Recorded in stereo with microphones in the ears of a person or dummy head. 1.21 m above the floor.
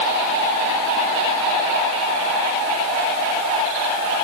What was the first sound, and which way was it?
Only background noise.